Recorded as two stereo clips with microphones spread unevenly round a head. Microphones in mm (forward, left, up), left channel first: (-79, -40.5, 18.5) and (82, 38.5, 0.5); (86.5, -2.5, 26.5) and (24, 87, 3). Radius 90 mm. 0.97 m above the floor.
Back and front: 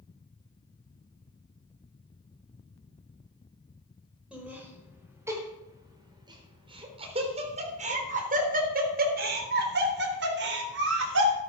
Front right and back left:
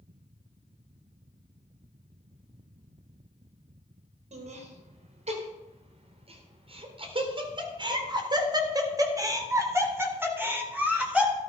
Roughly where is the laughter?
Left.